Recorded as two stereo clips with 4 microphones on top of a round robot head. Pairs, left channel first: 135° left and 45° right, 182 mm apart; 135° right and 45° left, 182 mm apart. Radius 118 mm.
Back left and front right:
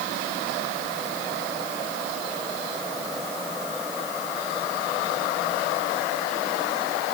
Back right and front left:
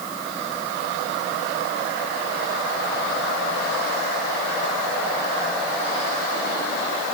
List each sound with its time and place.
Only background noise.